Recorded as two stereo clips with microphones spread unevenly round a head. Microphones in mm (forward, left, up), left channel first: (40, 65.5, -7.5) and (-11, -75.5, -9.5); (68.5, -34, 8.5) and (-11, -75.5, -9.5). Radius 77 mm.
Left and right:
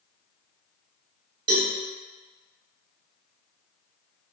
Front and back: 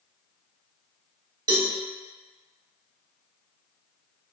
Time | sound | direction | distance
1.5 | a cowbell | 140° right | 1.2 m